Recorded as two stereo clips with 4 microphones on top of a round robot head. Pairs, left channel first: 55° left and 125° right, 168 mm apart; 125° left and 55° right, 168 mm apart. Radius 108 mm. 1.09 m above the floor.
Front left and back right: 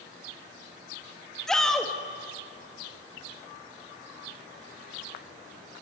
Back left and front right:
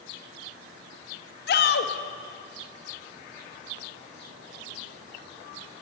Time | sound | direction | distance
1.5 | a shout | 145° left | 2 m